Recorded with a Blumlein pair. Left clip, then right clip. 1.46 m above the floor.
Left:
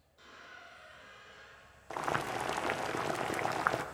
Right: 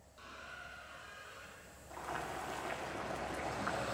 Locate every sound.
0.2 s a squeak: 55° right, 4.5 m
1.9 s boiling: 35° left, 0.8 m